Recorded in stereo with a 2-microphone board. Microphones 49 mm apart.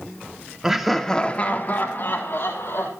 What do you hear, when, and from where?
0.6 s laughter: 10° right (ahead or behind), 1.0 m; by 2.9 s 70° left (ahead or behind), 2 m